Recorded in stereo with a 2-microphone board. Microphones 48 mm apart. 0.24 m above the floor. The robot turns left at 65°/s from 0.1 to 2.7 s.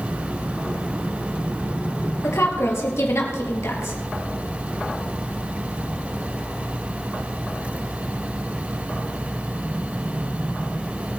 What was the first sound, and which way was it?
A woman speaking, 75° left (ahead or behind).